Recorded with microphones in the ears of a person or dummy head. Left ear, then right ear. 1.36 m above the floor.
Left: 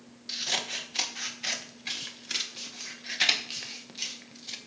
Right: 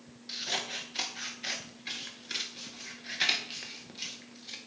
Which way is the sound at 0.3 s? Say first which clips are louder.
Left 3 dB; 15° left (ahead or behind).